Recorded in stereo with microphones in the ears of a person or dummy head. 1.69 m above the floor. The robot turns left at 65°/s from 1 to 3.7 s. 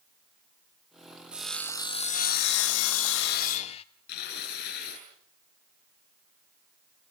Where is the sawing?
175° right, 1.0 m; by 3.8 s 30° left, 1.0 m.